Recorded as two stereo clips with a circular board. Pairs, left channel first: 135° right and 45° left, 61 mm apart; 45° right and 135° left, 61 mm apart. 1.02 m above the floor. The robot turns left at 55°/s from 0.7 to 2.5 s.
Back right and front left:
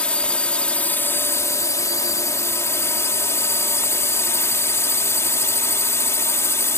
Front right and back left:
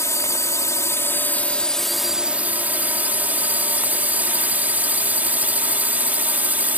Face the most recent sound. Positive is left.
turn(degrees=-165)